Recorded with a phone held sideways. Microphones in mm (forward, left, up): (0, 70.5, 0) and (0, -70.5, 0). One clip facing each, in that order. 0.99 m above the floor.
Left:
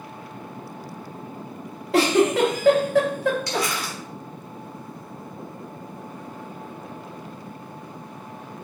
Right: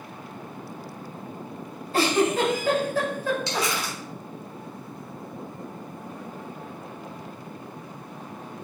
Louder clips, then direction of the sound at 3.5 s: Left 1 dB; 25° right (ahead or behind).